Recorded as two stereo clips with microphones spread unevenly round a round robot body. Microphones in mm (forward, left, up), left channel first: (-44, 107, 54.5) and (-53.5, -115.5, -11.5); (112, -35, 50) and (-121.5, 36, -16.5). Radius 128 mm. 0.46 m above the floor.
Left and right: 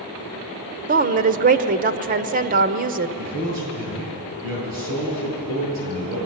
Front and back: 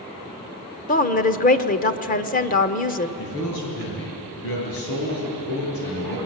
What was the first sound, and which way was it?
A woman speaking, 80° right.